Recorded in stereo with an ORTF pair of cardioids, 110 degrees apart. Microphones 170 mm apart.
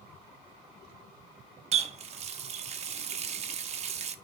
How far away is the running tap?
About 0.7 m.